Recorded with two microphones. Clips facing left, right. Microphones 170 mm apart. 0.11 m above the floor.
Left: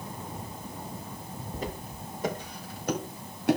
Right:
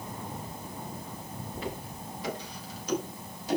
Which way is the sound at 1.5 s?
40° left (ahead or behind).